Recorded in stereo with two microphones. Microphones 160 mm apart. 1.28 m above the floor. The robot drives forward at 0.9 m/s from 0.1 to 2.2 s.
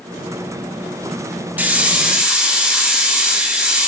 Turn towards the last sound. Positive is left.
turn(degrees=-5)  # may be behind; listen again after turning